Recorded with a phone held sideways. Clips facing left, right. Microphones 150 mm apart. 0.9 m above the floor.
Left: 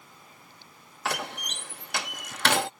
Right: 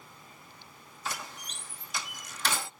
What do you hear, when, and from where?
1.1 s a door slam: 70° left (ahead or behind)